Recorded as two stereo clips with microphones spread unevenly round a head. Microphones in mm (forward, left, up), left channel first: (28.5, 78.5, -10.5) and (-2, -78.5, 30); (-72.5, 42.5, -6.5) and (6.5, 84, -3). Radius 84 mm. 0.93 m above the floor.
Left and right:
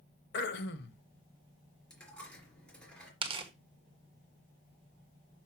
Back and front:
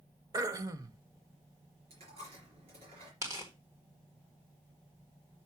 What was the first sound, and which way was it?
Throat clearing, 60° left.